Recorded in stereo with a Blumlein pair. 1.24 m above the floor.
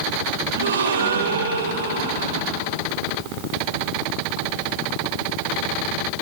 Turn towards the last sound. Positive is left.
turn(degrees=-65)